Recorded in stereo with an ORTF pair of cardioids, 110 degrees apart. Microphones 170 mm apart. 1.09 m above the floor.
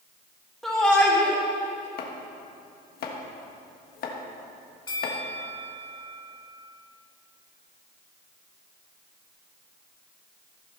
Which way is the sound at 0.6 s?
Straight ahead.